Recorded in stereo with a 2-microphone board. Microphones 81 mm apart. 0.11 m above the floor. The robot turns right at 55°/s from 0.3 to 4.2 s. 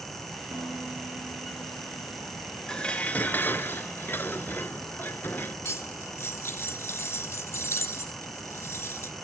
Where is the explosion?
I don't hear an explosion.